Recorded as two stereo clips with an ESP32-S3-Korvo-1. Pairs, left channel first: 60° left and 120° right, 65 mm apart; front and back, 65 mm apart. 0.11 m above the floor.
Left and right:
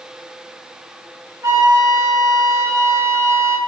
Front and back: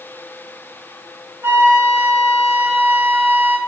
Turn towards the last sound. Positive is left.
turn(degrees=-135)